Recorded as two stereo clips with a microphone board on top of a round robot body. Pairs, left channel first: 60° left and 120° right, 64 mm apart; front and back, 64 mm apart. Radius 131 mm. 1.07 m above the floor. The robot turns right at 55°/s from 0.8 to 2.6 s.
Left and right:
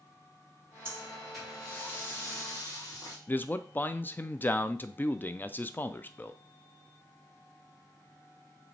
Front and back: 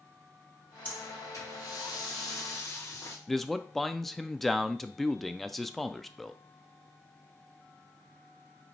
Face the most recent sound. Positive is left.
turn(degrees=85)